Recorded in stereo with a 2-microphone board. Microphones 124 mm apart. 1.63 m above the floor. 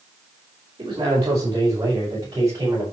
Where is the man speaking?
35° right (ahead or behind), 6 m; by 2.8 s 25° right (ahead or behind), 8 m.